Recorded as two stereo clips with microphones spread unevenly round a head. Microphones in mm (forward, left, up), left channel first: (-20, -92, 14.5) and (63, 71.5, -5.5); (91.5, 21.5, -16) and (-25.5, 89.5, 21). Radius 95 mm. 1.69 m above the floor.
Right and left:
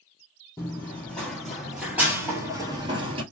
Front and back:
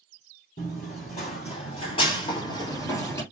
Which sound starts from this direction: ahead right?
Running footsteps, at 0.6 s.